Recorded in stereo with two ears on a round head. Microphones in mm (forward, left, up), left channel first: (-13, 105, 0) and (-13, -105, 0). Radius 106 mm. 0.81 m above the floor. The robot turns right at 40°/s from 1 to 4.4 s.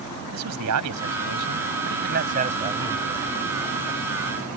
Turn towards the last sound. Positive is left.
turn(degrees=45)